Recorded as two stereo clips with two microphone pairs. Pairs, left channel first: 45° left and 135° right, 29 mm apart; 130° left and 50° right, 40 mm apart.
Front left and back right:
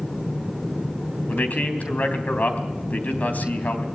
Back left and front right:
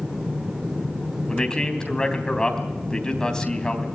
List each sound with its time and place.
1.3 s a man speaking: 60° left, 3.5 m